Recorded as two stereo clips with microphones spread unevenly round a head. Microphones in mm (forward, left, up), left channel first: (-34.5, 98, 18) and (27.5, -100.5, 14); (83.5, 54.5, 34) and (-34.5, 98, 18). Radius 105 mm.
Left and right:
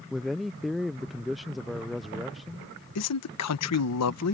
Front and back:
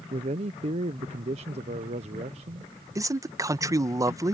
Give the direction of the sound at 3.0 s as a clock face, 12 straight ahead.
9 o'clock.